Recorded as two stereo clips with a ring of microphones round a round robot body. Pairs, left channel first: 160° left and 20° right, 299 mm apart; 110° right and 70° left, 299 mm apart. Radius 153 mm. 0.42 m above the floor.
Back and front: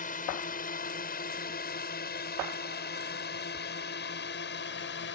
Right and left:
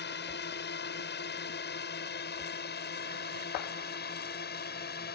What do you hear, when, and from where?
0.0 s a drone: 150° right; by 5.2 s 160° right